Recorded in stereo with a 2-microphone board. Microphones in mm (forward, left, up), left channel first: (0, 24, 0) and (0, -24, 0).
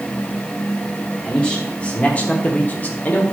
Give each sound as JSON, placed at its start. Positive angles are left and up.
{"t": 1.2, "sound": "a man speaking", "side_deg": 20, "distance_m": 1.4}